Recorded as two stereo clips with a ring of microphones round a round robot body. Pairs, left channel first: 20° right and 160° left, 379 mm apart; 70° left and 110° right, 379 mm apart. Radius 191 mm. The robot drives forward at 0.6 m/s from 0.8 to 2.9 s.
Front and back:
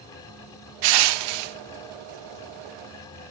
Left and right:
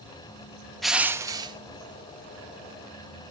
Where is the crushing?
155° left, 0.6 m; by 1.6 s 170° left, 0.9 m.